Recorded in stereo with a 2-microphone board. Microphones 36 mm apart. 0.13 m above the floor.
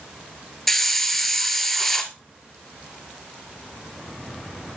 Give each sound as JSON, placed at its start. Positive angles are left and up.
{"t": 0.7, "sound": "a hiss", "side_deg": 5, "distance_m": 1.2}